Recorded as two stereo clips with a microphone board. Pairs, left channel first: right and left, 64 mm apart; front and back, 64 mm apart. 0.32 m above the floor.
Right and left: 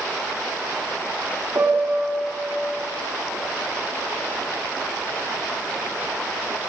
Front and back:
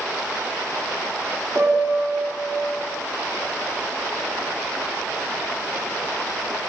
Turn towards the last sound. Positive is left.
turn(degrees=155)